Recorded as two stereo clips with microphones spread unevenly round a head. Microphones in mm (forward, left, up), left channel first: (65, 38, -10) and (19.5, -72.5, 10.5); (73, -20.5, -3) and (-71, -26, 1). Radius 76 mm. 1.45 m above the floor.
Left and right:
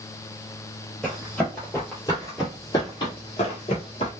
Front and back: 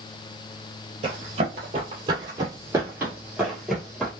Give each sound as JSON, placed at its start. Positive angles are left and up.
{"t": 1.0, "sound": "running footsteps", "azimuth_deg": 160, "distance_m": 2.0}